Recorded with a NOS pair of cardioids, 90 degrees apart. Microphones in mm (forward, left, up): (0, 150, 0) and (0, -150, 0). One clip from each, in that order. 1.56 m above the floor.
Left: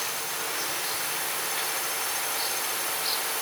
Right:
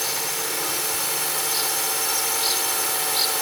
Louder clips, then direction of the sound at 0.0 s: Right 5 dB; 60° right.